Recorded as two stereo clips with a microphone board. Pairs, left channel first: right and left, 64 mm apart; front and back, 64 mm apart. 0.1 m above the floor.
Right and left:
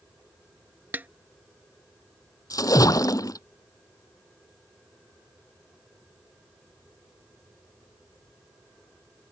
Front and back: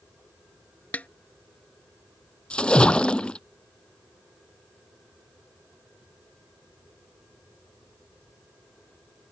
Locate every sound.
0.9 s a snare drum: 50° left
2.5 s a splash: 75° right